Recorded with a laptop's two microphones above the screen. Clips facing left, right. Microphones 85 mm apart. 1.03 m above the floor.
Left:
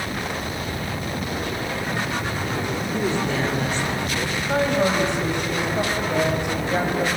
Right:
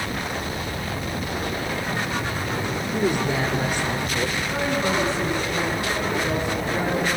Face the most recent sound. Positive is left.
turn(degrees=65)  # may be behind; listen again after turning